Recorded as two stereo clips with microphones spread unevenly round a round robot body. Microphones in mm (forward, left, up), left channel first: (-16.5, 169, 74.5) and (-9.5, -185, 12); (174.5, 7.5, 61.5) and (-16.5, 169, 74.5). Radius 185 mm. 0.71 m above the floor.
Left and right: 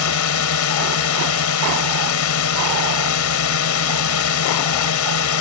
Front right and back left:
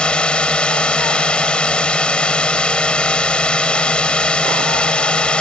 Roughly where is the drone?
Ahead left.